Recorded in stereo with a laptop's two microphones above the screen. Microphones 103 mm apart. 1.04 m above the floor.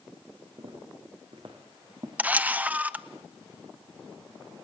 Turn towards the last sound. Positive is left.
turn(degrees=-15)  # may be behind; listen again after turning